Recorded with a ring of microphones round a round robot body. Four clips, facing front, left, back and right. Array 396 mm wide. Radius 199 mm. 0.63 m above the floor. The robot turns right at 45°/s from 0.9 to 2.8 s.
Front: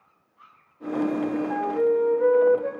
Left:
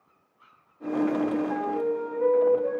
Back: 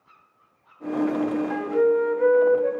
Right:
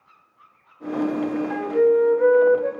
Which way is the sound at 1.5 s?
130° right.